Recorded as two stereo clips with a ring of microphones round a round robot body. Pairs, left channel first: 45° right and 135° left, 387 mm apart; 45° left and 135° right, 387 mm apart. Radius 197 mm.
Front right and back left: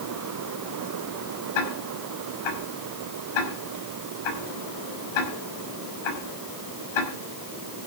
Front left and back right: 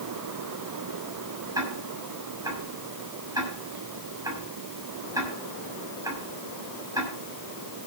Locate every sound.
1.6 s ticking: 55° right, 6 m